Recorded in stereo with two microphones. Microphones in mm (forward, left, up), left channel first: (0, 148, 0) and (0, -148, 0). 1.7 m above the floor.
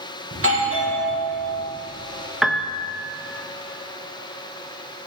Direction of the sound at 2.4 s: Centre (ahead or behind).